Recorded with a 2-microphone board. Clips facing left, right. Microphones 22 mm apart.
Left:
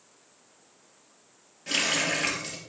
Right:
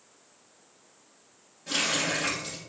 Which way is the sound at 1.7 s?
50° left (ahead or behind).